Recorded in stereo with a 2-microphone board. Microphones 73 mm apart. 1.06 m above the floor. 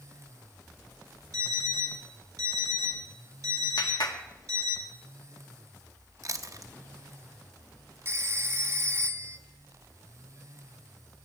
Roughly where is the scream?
No scream in this recording.